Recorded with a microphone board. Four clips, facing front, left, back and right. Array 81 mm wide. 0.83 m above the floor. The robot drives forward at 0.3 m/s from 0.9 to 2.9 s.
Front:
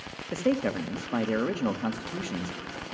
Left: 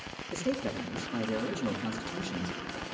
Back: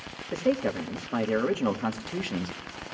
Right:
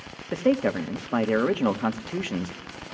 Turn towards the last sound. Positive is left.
turn(degrees=-115)